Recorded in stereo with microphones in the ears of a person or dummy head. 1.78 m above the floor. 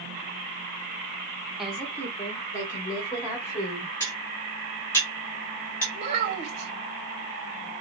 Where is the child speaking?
35° right (ahead or behind), 1.2 m.